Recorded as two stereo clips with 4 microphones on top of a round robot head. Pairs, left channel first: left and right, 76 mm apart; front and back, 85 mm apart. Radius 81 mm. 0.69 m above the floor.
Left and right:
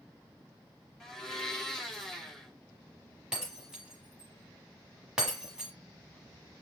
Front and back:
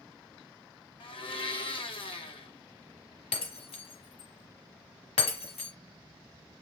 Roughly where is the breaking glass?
Ahead.